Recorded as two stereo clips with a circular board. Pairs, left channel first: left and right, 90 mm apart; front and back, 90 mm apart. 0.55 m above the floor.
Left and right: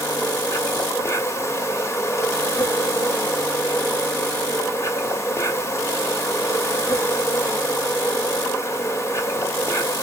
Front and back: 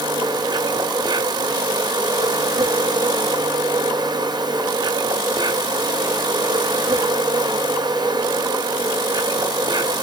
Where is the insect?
145° left, 1.6 m.